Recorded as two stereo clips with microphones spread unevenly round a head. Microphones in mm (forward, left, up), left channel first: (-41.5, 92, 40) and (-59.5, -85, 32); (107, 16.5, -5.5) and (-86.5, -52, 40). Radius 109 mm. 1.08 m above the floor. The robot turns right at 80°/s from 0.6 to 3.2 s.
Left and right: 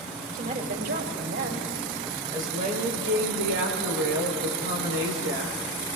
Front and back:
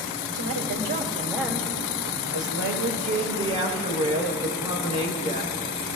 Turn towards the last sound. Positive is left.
turn(degrees=-100)